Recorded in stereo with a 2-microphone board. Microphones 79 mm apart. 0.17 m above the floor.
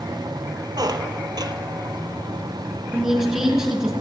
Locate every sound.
0.8 s a squeak: 60° right (ahead or behind), 0.9 m
2.9 s a woman speaking: 5° right (ahead or behind), 2.5 m